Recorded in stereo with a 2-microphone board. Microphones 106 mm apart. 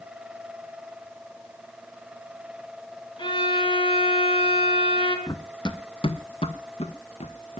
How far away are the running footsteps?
About 1.2 m.